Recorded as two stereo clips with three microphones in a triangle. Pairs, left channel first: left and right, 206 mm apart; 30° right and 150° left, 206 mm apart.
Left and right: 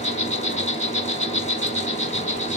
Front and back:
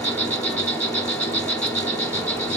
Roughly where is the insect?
Ahead left.